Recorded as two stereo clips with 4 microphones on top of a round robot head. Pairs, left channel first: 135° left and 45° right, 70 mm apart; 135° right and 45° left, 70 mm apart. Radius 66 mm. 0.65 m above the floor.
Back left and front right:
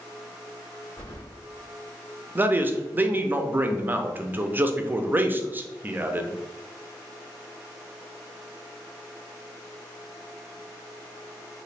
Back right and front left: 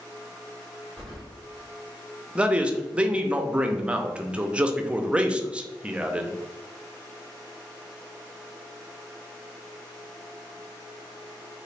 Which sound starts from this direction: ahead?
A man speaking, at 2.4 s.